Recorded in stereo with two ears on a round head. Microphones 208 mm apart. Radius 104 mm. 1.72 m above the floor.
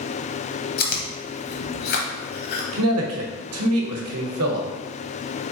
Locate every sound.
0.8 s chewing: 40° left (ahead or behind), 0.7 m
2.7 s a man speaking: 65° right (ahead or behind), 0.8 m